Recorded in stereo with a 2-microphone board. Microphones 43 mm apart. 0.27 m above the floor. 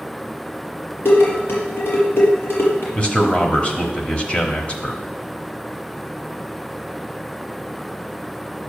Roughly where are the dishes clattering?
Left.